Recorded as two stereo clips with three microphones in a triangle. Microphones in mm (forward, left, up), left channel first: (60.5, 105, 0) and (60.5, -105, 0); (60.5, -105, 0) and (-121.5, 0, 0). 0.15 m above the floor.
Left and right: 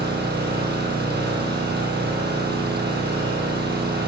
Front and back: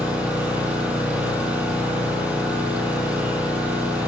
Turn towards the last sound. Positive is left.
turn(degrees=-125)